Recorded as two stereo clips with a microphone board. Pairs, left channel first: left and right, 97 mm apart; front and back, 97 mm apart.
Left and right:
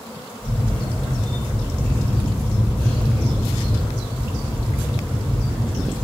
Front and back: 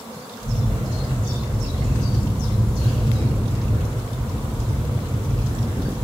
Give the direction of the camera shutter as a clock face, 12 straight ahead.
7 o'clock.